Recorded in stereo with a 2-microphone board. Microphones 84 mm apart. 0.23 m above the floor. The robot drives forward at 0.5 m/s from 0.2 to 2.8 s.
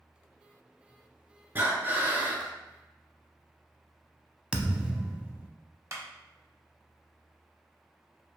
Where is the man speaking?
I don't hear a man speaking.